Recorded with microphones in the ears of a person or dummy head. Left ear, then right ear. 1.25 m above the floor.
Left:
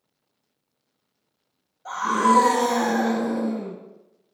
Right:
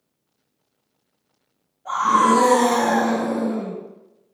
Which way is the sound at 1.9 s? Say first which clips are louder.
Right 4 dB; 55° left (ahead or behind).